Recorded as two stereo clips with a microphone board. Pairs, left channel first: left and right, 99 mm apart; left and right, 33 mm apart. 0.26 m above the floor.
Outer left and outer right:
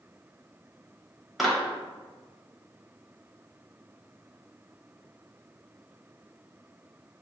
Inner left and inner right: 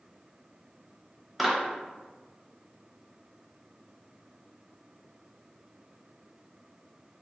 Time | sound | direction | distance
1.4 | a clap | centre (ahead or behind) | 0.7 m